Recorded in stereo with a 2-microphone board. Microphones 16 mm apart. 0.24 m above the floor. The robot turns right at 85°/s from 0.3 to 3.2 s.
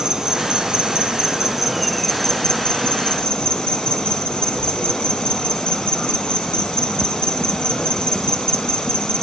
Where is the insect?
125° right, 0.9 m; by 9.2 s 120° left, 0.9 m.